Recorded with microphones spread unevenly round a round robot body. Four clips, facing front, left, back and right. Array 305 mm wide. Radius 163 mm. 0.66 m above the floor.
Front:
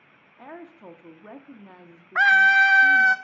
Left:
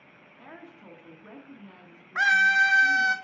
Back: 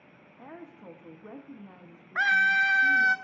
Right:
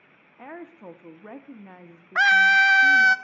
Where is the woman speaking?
30° right, 1.0 m.